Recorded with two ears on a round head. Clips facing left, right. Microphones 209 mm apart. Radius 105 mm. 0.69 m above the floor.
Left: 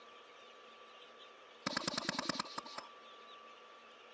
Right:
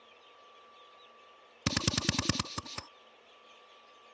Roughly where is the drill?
Right.